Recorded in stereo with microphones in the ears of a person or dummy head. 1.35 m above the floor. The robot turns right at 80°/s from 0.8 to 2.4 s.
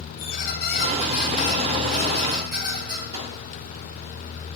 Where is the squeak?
105° left, 2.5 m; by 3.0 s 130° right, 2.5 m.